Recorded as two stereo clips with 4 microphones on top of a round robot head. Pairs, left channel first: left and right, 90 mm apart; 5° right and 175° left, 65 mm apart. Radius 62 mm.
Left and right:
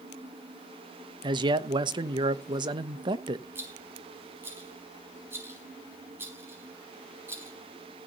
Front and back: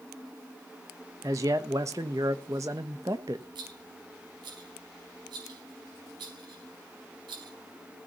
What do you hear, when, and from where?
1.2 s a man speaking: 130° right, 1.1 m
3.5 s a rattle: 155° right, 4.5 m